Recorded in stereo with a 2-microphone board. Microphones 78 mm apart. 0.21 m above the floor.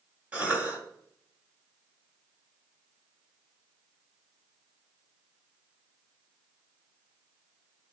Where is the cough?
20° right (ahead or behind), 1.1 m.